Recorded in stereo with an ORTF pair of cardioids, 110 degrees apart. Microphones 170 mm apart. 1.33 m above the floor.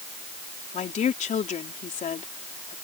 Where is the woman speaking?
45° left.